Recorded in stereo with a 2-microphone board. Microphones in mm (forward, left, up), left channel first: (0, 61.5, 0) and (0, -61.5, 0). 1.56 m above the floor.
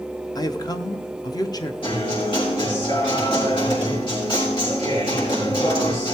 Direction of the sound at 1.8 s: 45° left (ahead or behind).